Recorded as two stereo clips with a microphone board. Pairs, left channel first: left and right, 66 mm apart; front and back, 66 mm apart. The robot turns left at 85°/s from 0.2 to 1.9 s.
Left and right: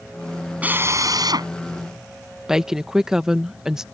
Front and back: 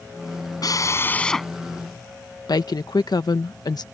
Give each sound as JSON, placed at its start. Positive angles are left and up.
{"t": 0.6, "sound": "a drill", "azimuth_deg": -20}
{"t": 2.5, "sound": "a woman speaking", "azimuth_deg": -10}